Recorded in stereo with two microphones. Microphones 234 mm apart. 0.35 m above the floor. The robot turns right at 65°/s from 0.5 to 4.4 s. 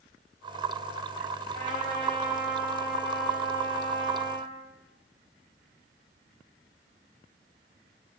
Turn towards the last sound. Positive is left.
turn(degrees=100)